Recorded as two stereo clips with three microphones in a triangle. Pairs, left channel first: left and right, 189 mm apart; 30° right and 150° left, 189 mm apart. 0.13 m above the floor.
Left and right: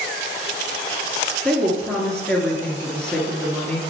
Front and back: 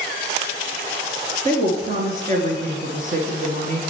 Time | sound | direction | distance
1.4 | a woman speaking | 175° left | 2 m